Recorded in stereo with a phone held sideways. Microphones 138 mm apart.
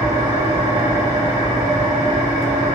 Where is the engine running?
40° right (ahead or behind), 1.7 m.